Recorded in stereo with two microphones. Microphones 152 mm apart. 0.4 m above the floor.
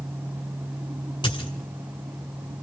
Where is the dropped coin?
30° left (ahead or behind), 2 m.